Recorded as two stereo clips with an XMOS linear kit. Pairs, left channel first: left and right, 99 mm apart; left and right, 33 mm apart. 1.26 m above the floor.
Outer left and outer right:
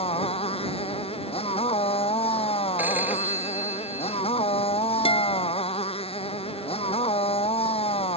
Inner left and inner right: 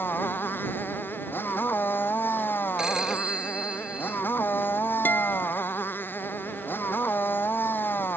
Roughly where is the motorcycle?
Left.